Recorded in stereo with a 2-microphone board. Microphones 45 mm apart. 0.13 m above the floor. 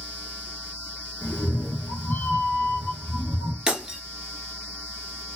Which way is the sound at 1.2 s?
50° left (ahead or behind).